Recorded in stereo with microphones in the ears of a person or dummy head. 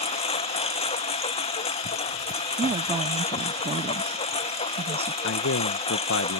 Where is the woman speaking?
30° right (ahead or behind).